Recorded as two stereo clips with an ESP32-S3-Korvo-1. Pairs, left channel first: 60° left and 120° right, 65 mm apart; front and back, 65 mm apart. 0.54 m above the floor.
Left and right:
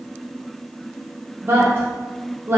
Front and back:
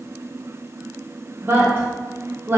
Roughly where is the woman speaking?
Behind right.